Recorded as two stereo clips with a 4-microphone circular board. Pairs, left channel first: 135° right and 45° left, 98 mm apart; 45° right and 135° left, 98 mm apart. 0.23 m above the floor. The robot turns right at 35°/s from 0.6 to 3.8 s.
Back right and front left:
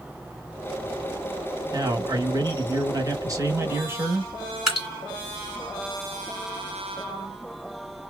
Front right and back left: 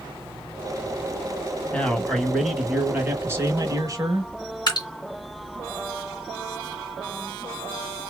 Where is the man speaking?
25° left, 1.3 m; by 4.3 s 100° left, 1.3 m.